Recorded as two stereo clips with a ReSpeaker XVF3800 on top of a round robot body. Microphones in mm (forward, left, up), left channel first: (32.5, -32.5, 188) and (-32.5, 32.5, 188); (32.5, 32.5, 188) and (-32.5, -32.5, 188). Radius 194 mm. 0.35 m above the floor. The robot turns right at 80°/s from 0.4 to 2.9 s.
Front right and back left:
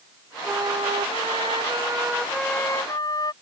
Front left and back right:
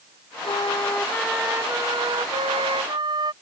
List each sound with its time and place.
0.4 s a flute: 70° left; by 3.3 s 95° right